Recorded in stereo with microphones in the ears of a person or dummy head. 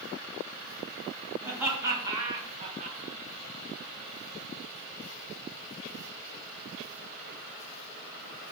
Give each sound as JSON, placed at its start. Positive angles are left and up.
{"t": 1.4, "sound": "laughter", "side_deg": -10, "distance_m": 1.5}